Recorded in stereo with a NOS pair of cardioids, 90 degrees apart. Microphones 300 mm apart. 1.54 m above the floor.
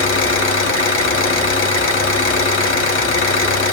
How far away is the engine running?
About 1.3 m.